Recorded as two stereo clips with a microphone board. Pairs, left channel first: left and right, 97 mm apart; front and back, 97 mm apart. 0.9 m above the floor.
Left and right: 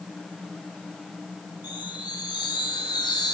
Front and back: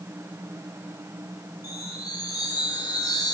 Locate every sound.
1.6 s a chime: 50° left, 2.5 m